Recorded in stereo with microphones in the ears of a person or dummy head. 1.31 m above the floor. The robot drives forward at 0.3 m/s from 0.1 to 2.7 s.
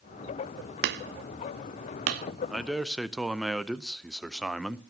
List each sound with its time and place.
0.8 s hammering: 55° right (ahead or behind), 1.1 m; by 2.3 s 50° right (ahead or behind), 1.2 m
2.5 s a man speaking: centre (ahead or behind), 0.6 m